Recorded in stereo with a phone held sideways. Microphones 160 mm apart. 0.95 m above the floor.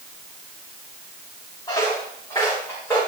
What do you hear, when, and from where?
1.7 s footsteps: 25° left (ahead or behind), 6.5 m; by 3.0 s 15° left (ahead or behind), 6 m